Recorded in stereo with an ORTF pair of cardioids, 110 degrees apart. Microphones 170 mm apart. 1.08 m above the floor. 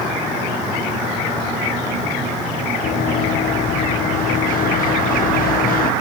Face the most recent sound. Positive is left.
turn(degrees=65)